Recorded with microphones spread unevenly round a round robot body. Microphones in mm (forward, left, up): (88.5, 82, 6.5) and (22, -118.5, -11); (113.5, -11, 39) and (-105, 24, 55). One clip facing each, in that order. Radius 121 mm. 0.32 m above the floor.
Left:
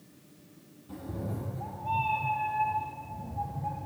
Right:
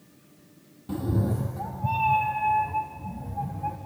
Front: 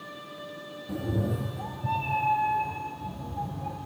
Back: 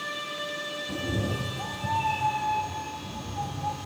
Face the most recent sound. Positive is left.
turn(degrees=-100)